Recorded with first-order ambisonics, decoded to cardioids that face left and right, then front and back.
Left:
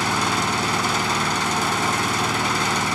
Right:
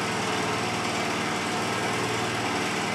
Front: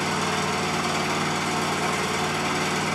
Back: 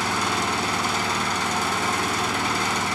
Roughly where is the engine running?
Left.